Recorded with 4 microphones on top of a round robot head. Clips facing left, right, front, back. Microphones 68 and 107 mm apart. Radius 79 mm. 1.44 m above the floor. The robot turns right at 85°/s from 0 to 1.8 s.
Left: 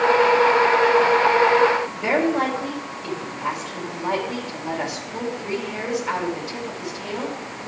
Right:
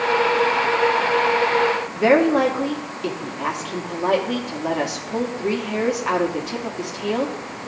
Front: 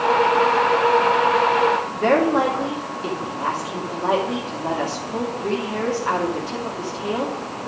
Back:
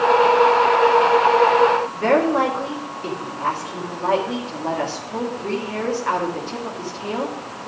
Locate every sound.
1.9 s a woman speaking: 80° right, 2 m